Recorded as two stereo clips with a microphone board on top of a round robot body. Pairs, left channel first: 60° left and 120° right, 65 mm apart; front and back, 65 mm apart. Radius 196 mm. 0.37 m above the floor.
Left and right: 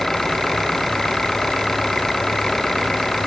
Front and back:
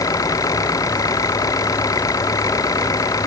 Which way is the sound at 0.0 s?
25° right.